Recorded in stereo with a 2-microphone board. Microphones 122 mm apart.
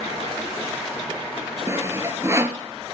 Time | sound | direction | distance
1.7 | sawing | 25° right (ahead or behind) | 1.1 m